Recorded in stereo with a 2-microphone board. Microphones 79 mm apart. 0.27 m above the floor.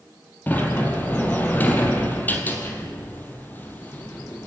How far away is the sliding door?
About 3 m.